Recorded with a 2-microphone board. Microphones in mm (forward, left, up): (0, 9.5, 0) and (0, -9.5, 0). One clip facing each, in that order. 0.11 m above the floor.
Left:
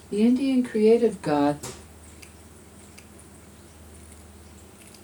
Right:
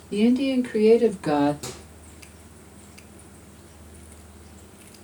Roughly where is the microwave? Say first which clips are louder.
Right 2 dB; right.